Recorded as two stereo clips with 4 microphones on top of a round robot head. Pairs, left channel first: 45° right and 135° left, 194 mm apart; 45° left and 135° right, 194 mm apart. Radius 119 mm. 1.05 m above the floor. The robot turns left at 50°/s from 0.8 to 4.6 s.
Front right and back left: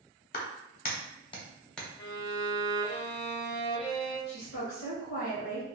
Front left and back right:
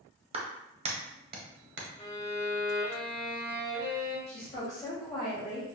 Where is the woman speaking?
10° right, 0.9 m; by 5.7 s 25° right, 0.9 m.